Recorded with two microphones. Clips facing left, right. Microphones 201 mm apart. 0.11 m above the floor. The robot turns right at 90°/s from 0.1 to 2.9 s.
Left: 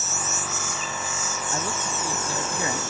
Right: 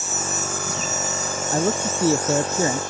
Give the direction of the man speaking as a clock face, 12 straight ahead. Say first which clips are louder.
Right 10 dB; 5 o'clock.